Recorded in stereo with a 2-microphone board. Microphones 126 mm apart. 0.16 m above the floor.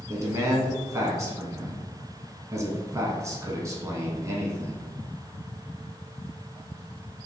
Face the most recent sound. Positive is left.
turn(degrees=-25)  # may be behind; listen again after turning